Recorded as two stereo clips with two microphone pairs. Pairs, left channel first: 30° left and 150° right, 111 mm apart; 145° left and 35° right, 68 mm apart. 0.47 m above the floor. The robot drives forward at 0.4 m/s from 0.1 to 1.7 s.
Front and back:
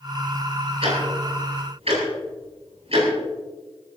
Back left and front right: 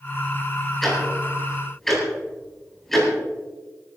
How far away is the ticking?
About 8.5 m.